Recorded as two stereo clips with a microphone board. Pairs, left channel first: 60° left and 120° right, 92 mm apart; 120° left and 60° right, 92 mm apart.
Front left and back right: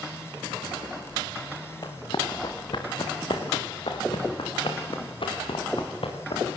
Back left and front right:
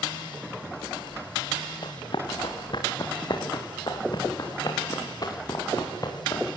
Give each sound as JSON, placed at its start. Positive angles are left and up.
{"t": 1.8, "sound": "running footsteps", "azimuth_deg": 95, "distance_m": 5.0}